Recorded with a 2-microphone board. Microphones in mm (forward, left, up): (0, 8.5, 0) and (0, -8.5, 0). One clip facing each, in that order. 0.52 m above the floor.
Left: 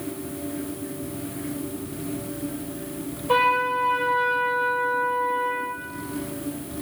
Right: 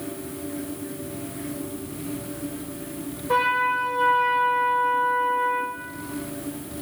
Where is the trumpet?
35° left (ahead or behind), 3 m.